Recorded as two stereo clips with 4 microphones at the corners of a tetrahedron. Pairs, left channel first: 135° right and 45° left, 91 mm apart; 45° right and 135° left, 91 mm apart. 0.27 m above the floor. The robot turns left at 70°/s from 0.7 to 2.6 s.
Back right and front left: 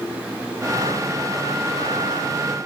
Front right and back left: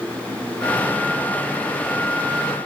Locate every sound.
Only background noise.